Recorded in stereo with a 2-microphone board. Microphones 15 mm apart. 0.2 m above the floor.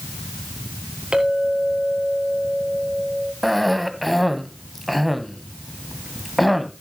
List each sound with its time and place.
1.1 s a clink: 70° right (ahead or behind), 3.5 m
3.4 s a cough: centre (ahead or behind), 1.1 m